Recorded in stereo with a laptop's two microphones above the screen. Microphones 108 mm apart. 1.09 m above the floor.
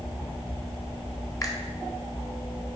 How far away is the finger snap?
About 1.1 m.